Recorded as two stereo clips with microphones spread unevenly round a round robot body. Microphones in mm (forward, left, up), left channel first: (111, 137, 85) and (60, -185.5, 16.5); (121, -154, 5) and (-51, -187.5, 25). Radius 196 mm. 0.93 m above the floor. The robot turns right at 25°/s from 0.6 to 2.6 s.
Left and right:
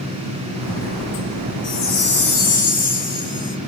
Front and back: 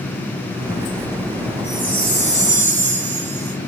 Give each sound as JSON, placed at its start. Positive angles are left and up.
{"t": 1.6, "sound": "a chime", "azimuth_deg": 125, "distance_m": 0.9}